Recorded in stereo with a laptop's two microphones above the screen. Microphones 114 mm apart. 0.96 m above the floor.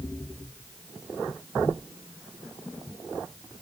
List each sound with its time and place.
Only background noise.